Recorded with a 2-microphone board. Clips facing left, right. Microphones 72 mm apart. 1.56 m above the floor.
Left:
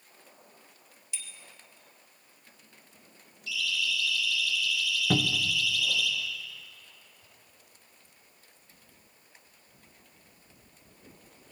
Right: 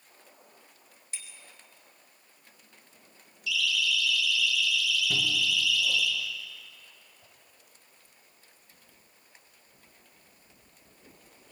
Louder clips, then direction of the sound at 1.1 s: Even; 45° right (ahead or behind).